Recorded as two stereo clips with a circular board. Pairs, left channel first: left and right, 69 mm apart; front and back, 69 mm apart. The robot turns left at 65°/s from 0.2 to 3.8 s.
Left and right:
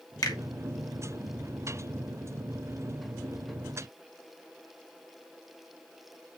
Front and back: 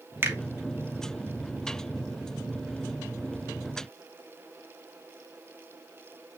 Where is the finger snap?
120° left, 2.5 m; by 0.4 s 110° left, 2.5 m.